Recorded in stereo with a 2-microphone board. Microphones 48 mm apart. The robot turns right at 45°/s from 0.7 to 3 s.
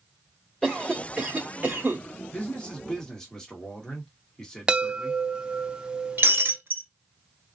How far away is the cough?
About 1.0 m.